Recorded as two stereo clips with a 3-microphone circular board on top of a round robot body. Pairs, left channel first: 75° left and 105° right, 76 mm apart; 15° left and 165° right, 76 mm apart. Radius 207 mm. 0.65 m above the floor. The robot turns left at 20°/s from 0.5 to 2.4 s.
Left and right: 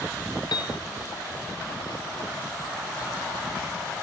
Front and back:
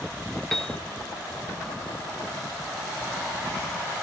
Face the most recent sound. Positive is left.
turn(degrees=60)